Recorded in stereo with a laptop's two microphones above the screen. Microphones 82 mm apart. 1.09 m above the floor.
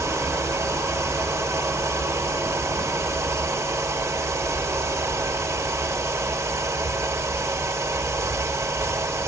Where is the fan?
40° right (ahead or behind), 4 m.